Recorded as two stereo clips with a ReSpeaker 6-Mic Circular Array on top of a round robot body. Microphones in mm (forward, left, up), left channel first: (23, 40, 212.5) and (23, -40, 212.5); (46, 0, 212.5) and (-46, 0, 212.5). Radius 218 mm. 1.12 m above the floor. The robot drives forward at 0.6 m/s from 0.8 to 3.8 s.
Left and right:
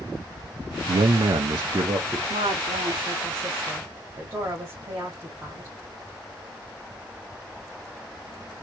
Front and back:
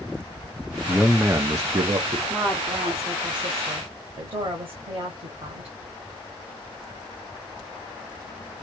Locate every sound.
0.9 s a man speaking: 80° right, 0.5 m; by 2.2 s 145° right, 0.9 m
2.3 s a woman speaking: 90° right, 0.6 m; by 5.8 s 145° right, 1.1 m